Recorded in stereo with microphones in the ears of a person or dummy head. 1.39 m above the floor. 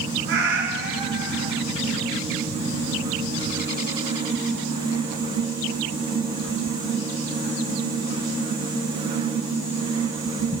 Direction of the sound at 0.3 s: 65° right (ahead or behind).